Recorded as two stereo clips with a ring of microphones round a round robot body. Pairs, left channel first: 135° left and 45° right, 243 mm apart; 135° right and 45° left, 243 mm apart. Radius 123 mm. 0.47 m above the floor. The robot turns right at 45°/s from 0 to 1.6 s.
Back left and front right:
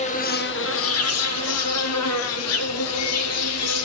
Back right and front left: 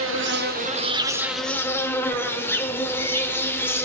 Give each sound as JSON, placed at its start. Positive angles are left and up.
{"t": 0.0, "sound": "an insect", "azimuth_deg": 70, "distance_m": 0.7}